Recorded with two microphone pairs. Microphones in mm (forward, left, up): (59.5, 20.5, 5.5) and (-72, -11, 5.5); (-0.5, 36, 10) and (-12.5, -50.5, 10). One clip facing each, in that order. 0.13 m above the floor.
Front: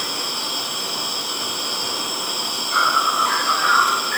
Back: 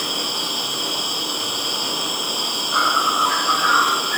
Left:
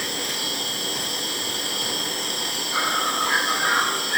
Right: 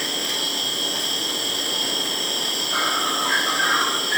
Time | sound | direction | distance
0.0 | an insect | 90° right | 4.5 m